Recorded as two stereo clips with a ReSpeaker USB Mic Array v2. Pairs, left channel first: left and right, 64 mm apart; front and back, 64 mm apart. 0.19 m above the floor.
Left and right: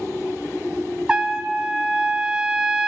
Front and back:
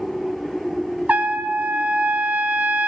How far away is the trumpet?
About 0.7 m.